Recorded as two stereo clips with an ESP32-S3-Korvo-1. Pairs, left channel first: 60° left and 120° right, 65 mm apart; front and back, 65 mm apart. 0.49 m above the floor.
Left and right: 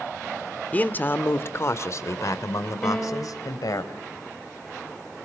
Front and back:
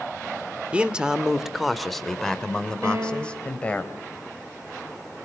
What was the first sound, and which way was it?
A man speaking, 115° left.